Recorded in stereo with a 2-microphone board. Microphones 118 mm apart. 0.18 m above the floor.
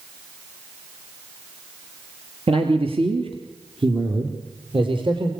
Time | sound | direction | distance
2.5 | a man speaking | 55° right (ahead or behind) | 3.5 m